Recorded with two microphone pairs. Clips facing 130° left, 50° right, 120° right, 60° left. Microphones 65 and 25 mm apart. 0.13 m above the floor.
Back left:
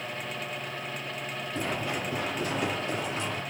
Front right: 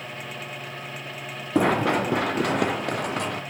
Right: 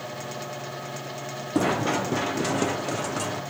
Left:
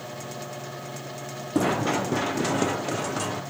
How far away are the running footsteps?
About 0.5 m.